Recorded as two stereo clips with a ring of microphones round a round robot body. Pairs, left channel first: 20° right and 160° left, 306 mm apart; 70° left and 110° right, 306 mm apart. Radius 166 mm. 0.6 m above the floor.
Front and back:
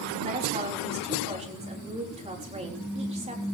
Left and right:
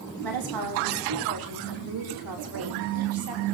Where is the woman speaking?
130° right, 4.5 m.